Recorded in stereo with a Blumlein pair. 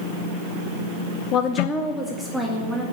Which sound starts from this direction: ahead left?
A woman speaking, at 1.3 s.